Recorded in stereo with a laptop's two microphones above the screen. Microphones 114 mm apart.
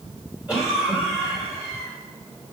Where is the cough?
10° right (ahead or behind), 4 m.